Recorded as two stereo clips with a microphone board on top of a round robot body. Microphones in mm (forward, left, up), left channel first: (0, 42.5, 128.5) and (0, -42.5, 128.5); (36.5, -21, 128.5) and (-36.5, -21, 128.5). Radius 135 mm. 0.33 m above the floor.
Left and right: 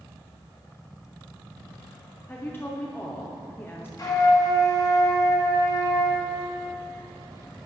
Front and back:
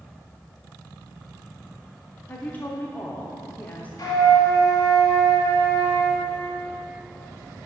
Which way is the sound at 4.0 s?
45° left.